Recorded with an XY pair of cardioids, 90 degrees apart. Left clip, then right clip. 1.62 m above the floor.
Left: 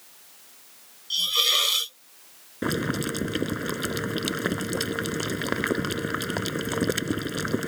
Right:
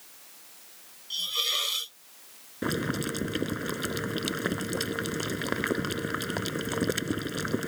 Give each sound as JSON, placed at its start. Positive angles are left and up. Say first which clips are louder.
{"t": 1.1, "sound": "a hiss", "louder": "left 6 dB", "azimuth_deg": 50}
{"t": 2.6, "sound": "boiling", "louder": "left 3 dB", "azimuth_deg": 25}